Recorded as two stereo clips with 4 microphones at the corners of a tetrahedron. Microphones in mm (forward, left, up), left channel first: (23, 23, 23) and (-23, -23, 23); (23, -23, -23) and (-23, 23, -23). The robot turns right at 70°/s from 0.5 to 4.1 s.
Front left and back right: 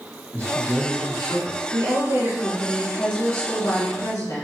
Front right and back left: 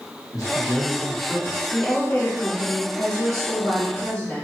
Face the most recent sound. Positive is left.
turn(degrees=35)